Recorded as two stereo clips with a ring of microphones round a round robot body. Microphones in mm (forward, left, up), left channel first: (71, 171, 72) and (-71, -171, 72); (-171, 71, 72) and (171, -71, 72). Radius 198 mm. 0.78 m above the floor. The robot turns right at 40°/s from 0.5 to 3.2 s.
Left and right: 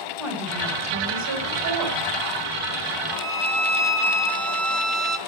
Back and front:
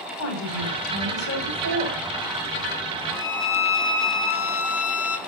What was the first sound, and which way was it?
A woman speaking, 160° left.